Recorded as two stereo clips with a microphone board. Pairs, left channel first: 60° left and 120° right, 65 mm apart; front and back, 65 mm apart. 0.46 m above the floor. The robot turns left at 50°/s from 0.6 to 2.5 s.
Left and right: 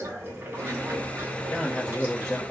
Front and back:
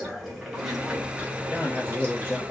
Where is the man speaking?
45° left, 1.2 m; by 2.4 s 5° right, 1.2 m.